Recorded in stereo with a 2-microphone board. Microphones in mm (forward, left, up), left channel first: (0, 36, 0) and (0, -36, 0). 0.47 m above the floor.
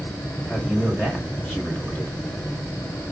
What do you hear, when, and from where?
0.5 s a man speaking: 15° left (ahead or behind), 3.5 m